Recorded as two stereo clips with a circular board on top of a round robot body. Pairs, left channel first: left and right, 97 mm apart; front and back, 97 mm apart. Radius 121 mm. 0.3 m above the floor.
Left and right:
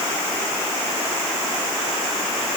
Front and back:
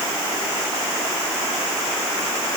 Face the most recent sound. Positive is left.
No sound to turn to.